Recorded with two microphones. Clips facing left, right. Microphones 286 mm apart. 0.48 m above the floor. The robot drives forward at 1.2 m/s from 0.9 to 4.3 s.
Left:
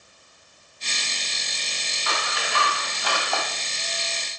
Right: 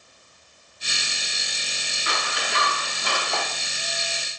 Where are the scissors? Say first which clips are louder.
Even; 20° right (ahead or behind), 4 m; by 3.4 s 30° right (ahead or behind), 2.5 m.